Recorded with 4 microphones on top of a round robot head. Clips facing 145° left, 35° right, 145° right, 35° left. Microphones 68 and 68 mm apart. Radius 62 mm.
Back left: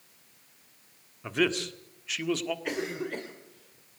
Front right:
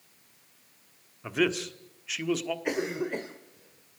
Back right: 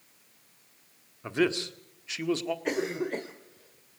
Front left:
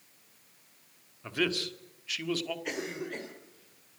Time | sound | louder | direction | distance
1.2 | a man speaking | even, back right 4 dB | 120° right | 1.5 m
2.6 | a cough | front right 3 dB, back right 6 dB | 100° right | 1.9 m